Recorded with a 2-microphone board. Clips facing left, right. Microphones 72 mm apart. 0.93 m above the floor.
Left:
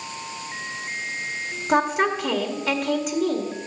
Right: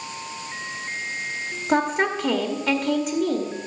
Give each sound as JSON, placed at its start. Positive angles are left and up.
{"t": 1.7, "sound": "a woman speaking", "side_deg": -10, "distance_m": 1.5}